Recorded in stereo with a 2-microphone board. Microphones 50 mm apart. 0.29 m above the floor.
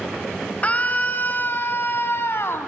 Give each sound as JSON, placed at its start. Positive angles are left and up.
{"t": 0.6, "sound": "a scream", "side_deg": 30, "distance_m": 1.6}